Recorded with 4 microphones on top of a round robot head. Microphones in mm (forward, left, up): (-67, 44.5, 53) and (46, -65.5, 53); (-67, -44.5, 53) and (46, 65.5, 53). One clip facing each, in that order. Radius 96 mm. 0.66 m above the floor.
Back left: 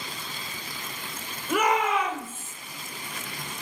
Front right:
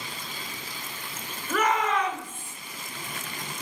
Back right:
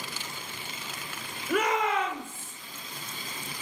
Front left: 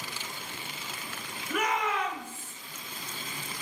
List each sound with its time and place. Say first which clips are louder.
1.5 s a shout: back left 1 dB, back right 4 dB; 150° right, 3 m; by 2.5 s 140° right, 2.5 m